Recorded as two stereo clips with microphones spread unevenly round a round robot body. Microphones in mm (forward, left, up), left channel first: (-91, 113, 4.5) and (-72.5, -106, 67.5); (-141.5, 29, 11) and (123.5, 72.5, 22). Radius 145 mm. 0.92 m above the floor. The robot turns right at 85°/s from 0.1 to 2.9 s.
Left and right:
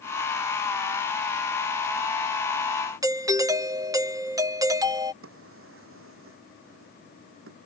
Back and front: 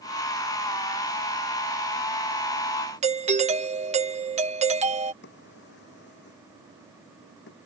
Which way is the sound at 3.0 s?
10° left.